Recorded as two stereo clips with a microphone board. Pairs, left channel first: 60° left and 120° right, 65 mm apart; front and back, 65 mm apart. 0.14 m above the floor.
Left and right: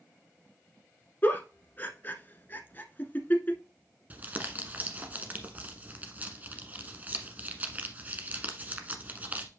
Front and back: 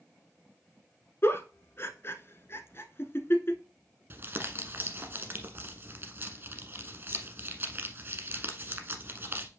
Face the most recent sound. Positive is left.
turn(degrees=-165)